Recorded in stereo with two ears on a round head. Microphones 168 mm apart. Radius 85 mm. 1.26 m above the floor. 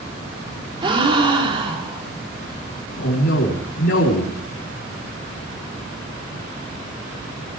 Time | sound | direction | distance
0.8 | a gasp | 30° right (ahead or behind) | 3 m
3.0 | a man speaking | 75° left (ahead or behind) | 3.5 m